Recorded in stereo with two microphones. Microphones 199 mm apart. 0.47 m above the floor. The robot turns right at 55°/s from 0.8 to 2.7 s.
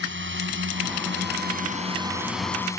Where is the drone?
70° right (ahead or behind); by 2.8 s 15° left (ahead or behind).